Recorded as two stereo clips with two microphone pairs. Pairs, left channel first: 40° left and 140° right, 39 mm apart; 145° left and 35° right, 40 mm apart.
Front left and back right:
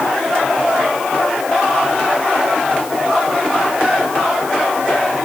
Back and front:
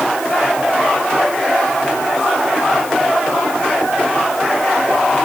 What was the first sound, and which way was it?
Only background noise.